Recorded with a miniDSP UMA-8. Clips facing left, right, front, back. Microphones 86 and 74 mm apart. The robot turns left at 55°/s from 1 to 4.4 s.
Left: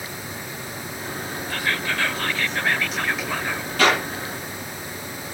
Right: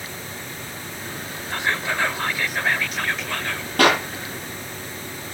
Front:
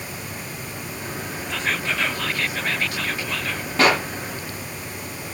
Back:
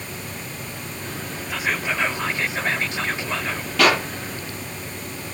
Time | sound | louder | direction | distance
1.5 | whispering | right 2 dB, back 1 dB | 105° right | 1.1 m
3.8 | a clap | right 2 dB, even | 55° right | 8 m